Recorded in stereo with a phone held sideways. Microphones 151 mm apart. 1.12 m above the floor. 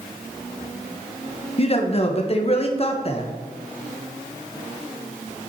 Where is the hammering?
I don't hear hammering.